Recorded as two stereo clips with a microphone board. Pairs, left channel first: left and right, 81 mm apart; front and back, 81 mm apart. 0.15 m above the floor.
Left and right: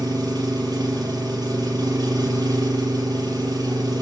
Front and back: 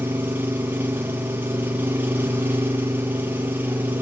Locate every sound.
0.0 s an engine running: 120° right, 3.5 m